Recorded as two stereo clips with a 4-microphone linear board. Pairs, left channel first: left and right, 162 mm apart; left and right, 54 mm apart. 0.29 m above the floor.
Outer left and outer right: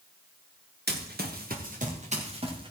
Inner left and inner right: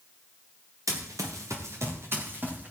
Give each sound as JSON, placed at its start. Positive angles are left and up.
{"t": 0.9, "sound": "running footsteps", "side_deg": -85, "distance_m": 2.5}